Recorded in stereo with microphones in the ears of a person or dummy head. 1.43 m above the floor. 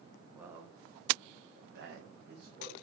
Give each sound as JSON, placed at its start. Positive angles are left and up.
{"t": 0.3, "sound": "a man speaking", "side_deg": -15, "distance_m": 0.7}